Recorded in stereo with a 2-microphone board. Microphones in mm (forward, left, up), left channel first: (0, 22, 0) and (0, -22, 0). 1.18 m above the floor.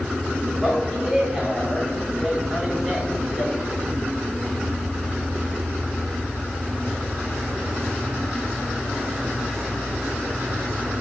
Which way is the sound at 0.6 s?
15° right (ahead or behind).